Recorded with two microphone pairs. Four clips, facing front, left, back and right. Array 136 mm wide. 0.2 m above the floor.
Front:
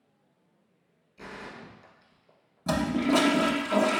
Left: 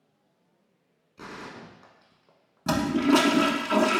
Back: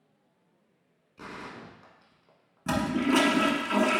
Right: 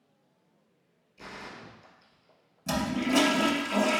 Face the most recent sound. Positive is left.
turn(degrees=95)